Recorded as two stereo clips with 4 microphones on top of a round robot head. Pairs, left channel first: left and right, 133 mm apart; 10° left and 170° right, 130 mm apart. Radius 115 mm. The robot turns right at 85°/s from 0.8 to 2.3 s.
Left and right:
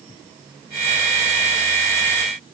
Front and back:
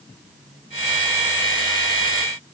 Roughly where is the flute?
I don't hear a flute.